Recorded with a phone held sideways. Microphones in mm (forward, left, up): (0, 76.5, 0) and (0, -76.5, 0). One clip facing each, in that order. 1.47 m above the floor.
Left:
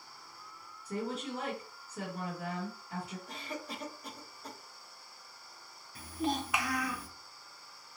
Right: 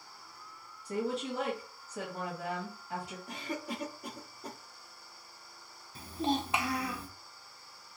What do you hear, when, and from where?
0.8 s a woman speaking: 75° right (ahead or behind), 1.6 m
3.3 s a cough: 70° right (ahead or behind), 0.9 m
6.0 s a child speaking: 30° right (ahead or behind), 0.6 m